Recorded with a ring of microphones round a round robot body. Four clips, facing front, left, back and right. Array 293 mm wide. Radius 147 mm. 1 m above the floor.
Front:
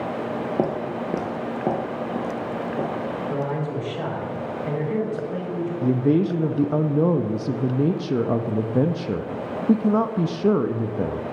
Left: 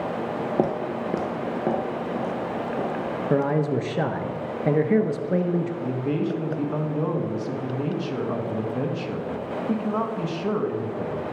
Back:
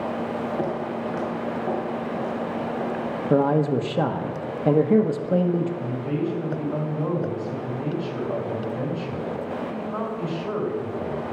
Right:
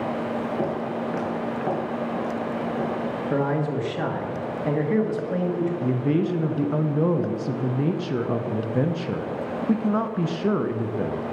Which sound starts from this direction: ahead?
A man speaking, at 5.8 s.